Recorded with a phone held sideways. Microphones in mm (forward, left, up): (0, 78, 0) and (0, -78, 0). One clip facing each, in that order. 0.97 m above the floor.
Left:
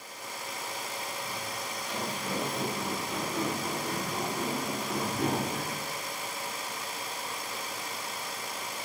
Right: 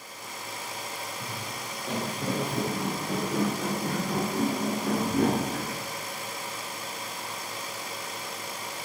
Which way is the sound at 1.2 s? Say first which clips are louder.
Even; 40° right (ahead or behind).